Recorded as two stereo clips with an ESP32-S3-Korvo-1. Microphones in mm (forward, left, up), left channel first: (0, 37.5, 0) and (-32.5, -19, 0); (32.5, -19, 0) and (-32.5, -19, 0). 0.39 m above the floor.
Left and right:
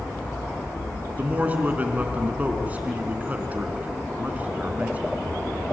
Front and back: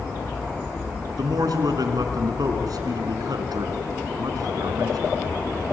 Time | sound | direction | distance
1.2 | a man speaking | 175° left | 3.5 m